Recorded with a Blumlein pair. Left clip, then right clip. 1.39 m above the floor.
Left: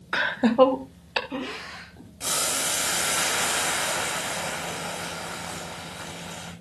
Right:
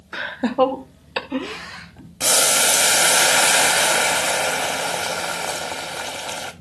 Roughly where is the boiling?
Ahead right.